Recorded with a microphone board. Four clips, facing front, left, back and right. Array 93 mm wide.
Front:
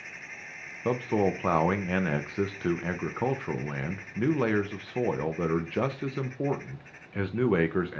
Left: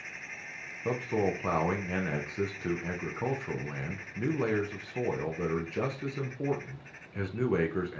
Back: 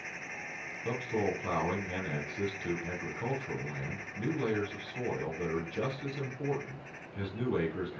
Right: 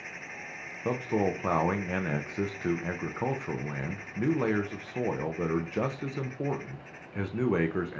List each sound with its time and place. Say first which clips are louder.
0.8 s a man speaking: right 1 dB, front 6 dB; 30° right, 0.5 m